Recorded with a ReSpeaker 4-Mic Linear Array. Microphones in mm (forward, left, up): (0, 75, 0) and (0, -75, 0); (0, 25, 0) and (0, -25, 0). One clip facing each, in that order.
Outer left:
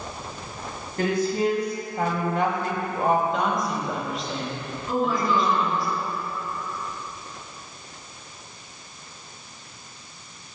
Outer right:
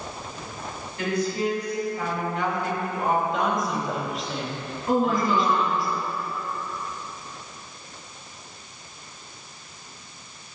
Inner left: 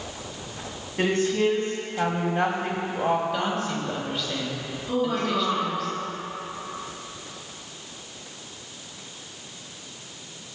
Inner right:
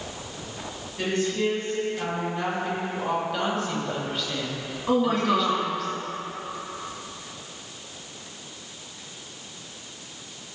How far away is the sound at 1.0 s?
About 2.5 m.